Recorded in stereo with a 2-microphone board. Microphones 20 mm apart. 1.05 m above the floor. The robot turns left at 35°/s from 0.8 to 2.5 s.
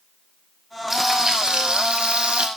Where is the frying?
20° right, 6.5 m; by 2.5 s 75° right, 6.5 m.